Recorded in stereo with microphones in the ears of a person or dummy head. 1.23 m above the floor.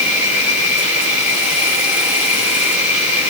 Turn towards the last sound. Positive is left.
turn(degrees=-5)  # may be behind; listen again after turning